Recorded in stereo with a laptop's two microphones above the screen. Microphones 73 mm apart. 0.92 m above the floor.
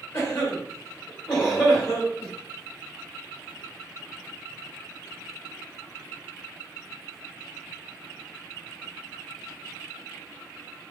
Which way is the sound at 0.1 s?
15° left (ahead or behind).